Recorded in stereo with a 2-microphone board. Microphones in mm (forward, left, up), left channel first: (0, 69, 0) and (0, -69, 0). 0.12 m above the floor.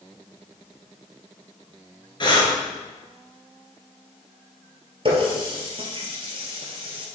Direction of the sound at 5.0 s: 45° right (ahead or behind).